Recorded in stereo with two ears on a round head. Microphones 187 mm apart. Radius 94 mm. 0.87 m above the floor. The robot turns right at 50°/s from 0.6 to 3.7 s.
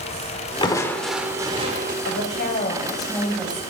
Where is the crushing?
155° left, 1.5 m; by 1.9 s 135° right, 1.5 m.